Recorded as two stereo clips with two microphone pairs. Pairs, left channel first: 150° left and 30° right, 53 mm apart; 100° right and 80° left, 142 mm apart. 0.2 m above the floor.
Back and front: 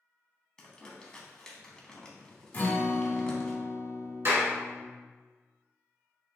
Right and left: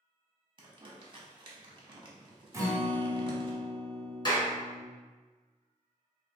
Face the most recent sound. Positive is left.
turn(degrees=-50)